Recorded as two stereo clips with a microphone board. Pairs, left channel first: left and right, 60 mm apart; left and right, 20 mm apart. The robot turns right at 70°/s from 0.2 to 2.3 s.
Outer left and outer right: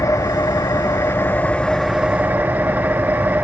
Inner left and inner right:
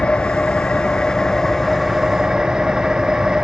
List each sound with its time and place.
0.0 s an engine running: 65° left, 0.8 m; by 3.4 s 150° right, 0.8 m